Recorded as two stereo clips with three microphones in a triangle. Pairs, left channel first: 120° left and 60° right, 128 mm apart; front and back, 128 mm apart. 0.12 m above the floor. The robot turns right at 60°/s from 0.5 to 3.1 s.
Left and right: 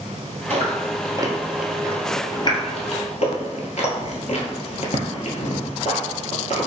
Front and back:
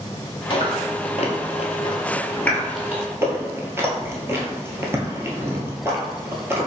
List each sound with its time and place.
0.5 s chewing: 45° right, 1.0 m; by 6.7 s 115° left, 1.0 m